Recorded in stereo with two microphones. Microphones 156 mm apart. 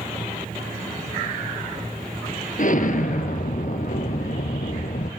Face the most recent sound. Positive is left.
turn(degrees=55)  # may be behind; listen again after turning